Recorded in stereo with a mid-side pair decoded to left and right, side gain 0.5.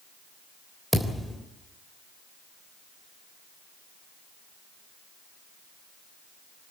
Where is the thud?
5° right, 3.5 m.